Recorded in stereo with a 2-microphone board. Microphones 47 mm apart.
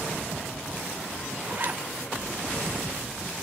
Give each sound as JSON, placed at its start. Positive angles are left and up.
{"t": 1.5, "sound": "a zipper", "side_deg": -40, "distance_m": 1.5}